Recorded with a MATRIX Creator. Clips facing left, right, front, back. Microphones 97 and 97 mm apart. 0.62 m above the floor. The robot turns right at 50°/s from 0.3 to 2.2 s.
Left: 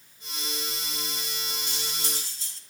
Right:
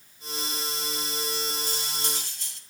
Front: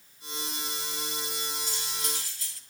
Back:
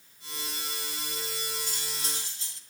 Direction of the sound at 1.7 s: 140° right.